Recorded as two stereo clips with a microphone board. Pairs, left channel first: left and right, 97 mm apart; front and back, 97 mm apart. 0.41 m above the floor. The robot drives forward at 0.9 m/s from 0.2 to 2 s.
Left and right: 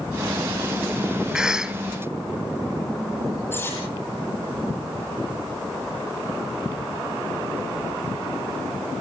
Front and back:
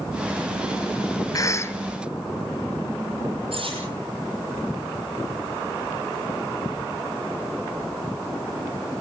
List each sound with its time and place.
1.3 s a cough: 10° right, 1.5 m; by 1.8 s 20° right, 1.2 m
3.5 s cutlery clinking: 160° left, 9 m